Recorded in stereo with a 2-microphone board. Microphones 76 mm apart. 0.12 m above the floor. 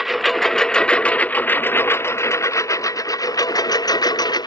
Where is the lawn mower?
Centre (ahead or behind); by 4.5 s 65° left (ahead or behind).